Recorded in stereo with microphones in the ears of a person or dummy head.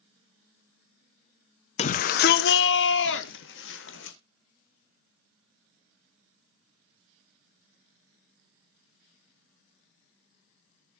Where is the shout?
35° left (ahead or behind), 0.8 m; by 4.2 s 65° left (ahead or behind), 2 m.